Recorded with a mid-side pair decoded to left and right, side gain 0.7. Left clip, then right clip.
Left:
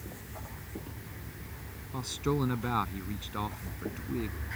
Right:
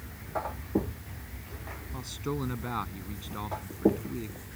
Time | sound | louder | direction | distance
1.9 | a man speaking | left 4 dB | 15° left | ?